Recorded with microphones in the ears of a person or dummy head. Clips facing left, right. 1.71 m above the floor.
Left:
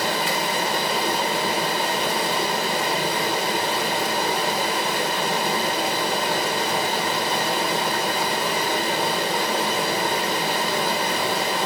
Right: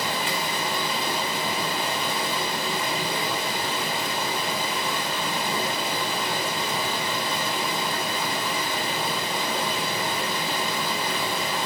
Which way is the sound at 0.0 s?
40° left (ahead or behind).